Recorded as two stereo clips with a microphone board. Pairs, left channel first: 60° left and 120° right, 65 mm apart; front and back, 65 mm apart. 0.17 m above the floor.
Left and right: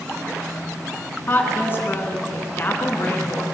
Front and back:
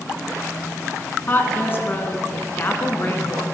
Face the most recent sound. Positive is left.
turn(degrees=30)